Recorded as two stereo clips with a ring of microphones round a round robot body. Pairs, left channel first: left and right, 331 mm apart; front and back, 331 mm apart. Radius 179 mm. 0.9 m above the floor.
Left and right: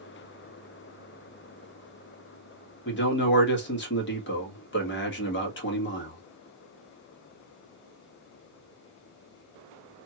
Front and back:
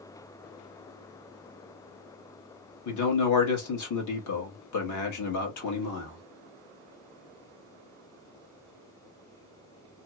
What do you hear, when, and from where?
2.9 s a man speaking: 35° left, 1.3 m